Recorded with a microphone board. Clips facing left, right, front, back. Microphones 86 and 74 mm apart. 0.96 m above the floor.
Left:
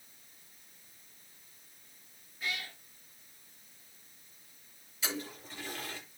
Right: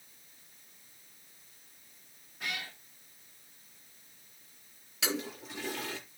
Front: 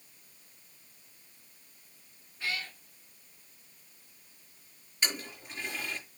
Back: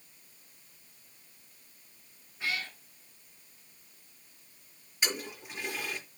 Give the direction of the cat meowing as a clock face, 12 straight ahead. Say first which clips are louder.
Even, back 1 dB; 4 o'clock.